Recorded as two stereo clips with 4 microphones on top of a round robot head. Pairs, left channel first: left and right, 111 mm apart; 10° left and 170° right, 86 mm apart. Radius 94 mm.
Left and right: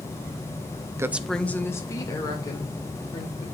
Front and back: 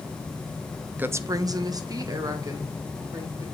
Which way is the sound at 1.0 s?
125° right.